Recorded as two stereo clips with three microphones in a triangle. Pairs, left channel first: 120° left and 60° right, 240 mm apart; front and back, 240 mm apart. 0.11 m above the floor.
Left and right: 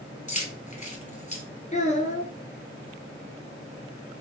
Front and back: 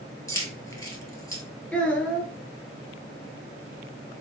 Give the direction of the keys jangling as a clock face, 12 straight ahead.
10 o'clock.